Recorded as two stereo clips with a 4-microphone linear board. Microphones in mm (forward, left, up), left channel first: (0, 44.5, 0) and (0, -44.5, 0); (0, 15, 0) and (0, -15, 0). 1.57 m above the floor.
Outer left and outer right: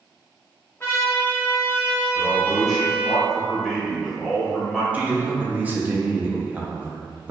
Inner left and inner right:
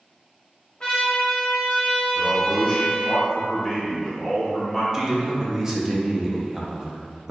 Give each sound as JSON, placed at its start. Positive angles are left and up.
{"t": 0.8, "sound": "a trumpet", "side_deg": 25, "distance_m": 1.2}
{"t": 2.1, "sound": "a man speaking", "side_deg": 0, "distance_m": 1.3}
{"t": 4.9, "sound": "a man speaking", "side_deg": -20, "distance_m": 0.7}